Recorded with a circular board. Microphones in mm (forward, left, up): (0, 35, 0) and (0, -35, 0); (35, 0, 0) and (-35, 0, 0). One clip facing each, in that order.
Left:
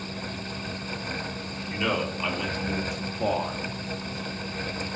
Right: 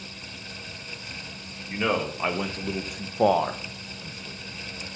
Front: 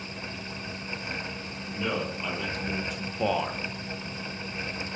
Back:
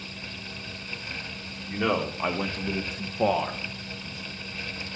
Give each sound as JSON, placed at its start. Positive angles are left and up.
{"t": 1.7, "sound": "a man speaking", "azimuth_deg": -155, "distance_m": 2.0}